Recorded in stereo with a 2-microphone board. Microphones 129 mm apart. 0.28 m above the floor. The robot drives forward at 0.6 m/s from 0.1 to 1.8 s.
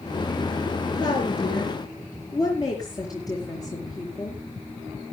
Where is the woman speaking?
35° left (ahead or behind), 4.5 m; by 4.4 s 30° left (ahead or behind), 5 m.